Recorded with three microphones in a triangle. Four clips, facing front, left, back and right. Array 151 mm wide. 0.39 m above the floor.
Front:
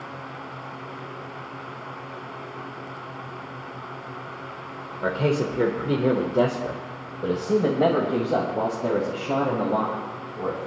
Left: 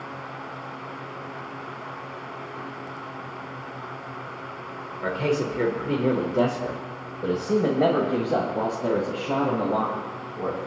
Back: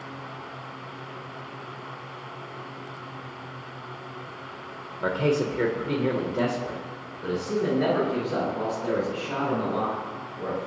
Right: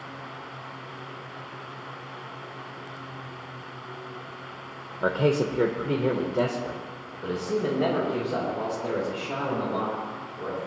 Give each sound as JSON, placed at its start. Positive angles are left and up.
{"t": 5.0, "sound": "a man speaking", "azimuth_deg": -85, "distance_m": 1.3}